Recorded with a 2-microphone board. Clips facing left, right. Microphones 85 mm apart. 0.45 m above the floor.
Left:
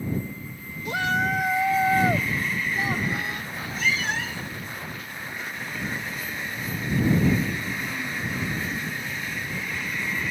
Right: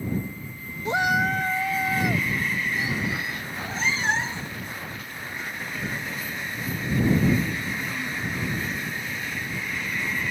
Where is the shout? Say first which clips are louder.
Right 2 dB; 30° right (ahead or behind); by 3.4 s 55° left (ahead or behind).